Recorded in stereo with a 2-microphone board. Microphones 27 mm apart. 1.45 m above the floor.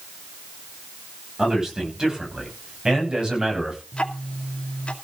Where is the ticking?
45° left (ahead or behind), 2.5 m.